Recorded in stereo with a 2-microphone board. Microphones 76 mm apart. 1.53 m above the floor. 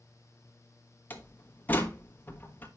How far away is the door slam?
About 1.2 m.